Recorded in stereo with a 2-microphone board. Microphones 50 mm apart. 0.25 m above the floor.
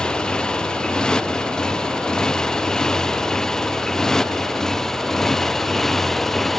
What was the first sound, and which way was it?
A motorcycle, 20° left (ahead or behind).